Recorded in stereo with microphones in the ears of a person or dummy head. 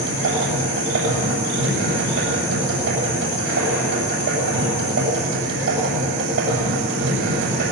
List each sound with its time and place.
0.0 s a machine running: 90° right, 7.5 m